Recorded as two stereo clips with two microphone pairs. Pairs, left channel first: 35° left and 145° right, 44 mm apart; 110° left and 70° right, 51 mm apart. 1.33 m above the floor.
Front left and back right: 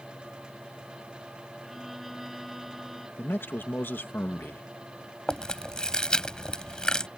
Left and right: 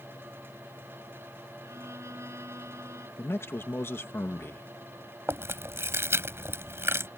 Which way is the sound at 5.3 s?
35° right.